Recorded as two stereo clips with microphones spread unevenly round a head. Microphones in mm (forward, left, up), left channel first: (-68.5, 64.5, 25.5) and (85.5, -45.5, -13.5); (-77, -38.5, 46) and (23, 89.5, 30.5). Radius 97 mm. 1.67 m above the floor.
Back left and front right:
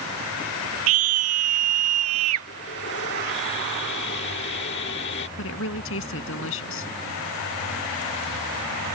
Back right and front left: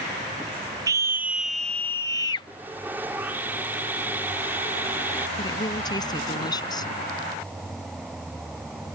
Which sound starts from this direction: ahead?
A scream, at 0.9 s.